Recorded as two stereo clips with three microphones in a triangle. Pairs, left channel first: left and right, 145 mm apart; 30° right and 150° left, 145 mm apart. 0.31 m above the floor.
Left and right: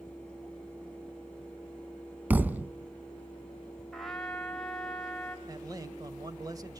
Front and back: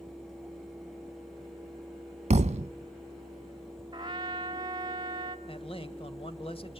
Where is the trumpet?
175° left, 1.5 m.